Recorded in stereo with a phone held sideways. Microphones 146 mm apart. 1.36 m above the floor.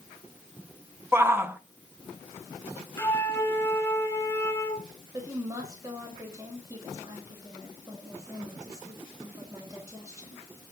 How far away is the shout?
About 1.0 m.